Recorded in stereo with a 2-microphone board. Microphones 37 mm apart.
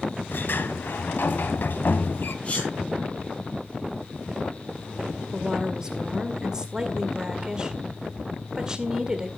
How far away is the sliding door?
About 0.7 m.